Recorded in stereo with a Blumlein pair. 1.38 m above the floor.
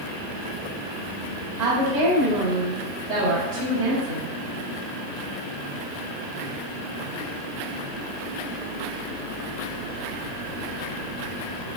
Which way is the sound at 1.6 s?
50° right.